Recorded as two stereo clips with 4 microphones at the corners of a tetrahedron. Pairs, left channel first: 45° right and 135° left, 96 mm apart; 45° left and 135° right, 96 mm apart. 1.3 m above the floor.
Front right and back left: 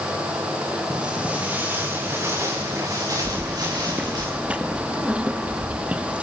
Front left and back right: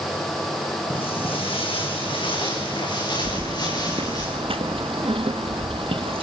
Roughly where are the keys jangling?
Behind right.